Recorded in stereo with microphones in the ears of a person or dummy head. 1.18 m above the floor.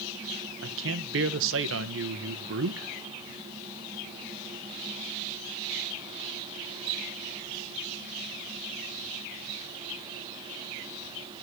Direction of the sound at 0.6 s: 65° right (ahead or behind).